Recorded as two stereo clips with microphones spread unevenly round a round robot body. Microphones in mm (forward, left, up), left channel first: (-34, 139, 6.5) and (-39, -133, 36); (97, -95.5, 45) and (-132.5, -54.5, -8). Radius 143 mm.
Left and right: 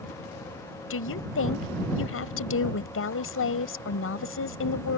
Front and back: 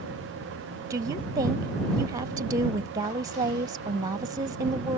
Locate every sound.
0.9 s a woman speaking: 105° left